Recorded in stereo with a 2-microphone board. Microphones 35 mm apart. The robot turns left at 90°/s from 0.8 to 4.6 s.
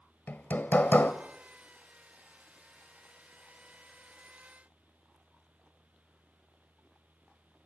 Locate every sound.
0.3 s hammering: 65° left (ahead or behind), 1.4 m; by 1.1 s 60° left (ahead or behind), 1.4 m